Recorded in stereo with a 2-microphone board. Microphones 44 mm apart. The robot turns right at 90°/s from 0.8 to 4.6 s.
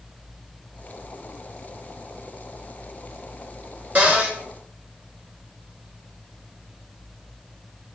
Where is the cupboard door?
90° right, 0.8 m; by 4.4 s 55° right, 0.8 m.